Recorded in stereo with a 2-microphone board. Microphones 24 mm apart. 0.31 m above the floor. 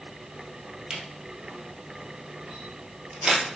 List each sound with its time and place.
0.9 s a camera shutter: 35° right (ahead or behind), 1.5 m